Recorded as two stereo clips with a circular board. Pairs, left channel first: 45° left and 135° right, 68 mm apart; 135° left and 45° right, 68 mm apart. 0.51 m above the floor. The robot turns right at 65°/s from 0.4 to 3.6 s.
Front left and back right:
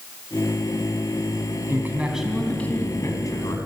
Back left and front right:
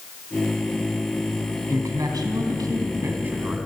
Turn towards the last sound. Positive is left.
turn(degrees=40)